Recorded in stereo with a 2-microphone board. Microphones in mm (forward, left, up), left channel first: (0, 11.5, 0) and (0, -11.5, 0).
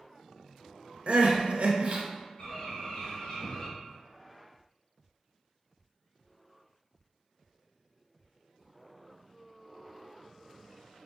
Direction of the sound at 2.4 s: 40° left (ahead or behind).